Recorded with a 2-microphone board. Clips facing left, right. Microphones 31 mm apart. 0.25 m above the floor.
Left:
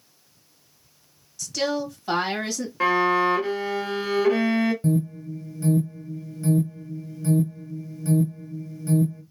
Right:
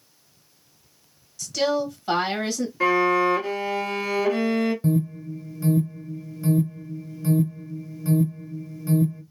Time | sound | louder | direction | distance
1.4 | a woman speaking | right 3 dB | 5° left (ahead or behind) | 1.9 m
2.8 | a violin | even | 35° left (ahead or behind) | 1.7 m
4.8 | an alarm | even | 10° right (ahead or behind) | 0.8 m